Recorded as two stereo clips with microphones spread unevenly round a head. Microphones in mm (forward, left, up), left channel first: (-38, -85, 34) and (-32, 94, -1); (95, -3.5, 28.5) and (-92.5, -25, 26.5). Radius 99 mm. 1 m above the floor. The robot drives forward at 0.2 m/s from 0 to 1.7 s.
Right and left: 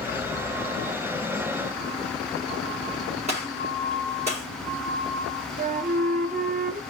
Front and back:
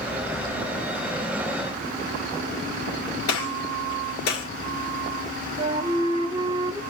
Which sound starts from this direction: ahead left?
A gunshot, at 3.3 s.